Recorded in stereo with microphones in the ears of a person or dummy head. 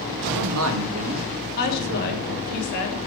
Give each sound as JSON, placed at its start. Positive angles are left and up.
{"t": 0.2, "sound": "a man speaking", "side_deg": -75, "distance_m": 1.9}
{"t": 1.6, "sound": "a woman speaking", "side_deg": 50, "distance_m": 3.0}